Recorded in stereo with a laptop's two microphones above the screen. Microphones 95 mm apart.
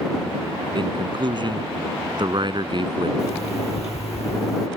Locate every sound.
0.8 s a man speaking: 50° right (ahead or behind)
3.2 s an alarm clock: 85° left